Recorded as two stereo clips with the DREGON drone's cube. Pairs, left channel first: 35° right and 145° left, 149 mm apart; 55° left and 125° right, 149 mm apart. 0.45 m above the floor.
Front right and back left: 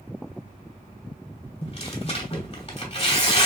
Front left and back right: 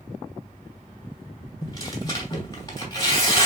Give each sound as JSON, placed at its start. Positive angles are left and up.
{"t": 1.6, "sound": "tearing paper", "azimuth_deg": 0, "distance_m": 2.0}